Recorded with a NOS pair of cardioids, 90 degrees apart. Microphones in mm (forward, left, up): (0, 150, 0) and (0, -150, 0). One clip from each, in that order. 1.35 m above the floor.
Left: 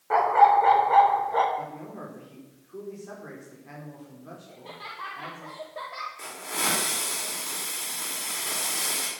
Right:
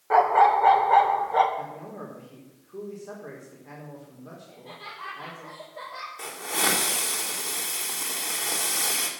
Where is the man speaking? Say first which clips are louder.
Even; 5° left, 4.5 m.